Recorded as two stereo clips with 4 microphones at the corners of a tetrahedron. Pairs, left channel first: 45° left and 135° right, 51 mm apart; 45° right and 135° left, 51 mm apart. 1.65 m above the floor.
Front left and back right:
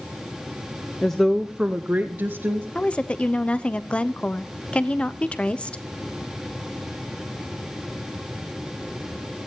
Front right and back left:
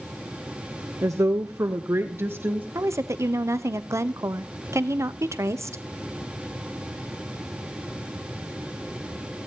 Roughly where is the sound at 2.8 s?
Behind left.